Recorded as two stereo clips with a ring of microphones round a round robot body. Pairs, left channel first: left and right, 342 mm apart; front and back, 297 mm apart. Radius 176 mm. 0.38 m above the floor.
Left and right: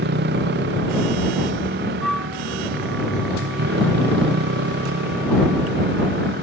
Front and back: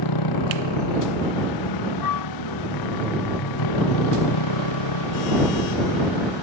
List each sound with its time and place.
0.0 s a motorcycle: 30° right
2.0 s a flute: straight ahead